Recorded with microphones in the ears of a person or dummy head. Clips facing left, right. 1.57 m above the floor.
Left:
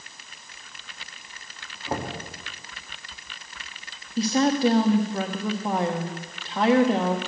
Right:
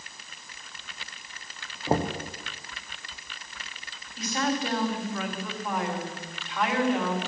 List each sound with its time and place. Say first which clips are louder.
1.9 s knocking: right 4 dB; 30° right (ahead or behind), 0.7 m
4.2 s a woman speaking: left 8 dB; 35° left (ahead or behind), 1.1 m